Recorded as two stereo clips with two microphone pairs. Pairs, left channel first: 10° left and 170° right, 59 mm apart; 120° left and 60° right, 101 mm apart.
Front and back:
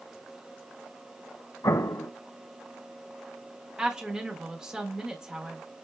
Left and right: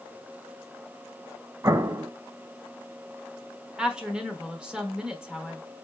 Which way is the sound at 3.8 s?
120° right.